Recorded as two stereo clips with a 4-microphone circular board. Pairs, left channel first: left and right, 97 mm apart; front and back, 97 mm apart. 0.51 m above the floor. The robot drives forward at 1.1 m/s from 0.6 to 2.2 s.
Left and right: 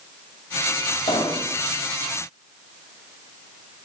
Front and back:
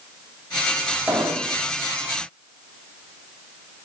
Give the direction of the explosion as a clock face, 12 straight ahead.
9 o'clock.